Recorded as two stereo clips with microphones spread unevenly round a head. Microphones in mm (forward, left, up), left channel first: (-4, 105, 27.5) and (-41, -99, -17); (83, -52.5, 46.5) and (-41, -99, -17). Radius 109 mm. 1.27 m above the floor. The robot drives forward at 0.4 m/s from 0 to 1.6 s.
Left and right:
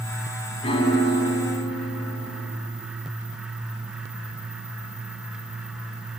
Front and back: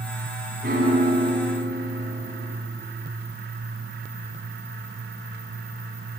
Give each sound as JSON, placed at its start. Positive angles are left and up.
{"t": 0.6, "sound": "a piano", "azimuth_deg": 135, "distance_m": 2.5}